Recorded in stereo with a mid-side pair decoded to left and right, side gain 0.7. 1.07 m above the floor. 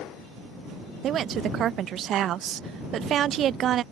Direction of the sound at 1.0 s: 45° right.